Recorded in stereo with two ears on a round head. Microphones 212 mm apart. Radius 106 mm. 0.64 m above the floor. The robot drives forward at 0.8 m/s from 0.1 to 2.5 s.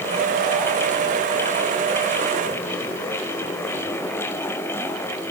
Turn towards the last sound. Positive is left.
No sound to turn to.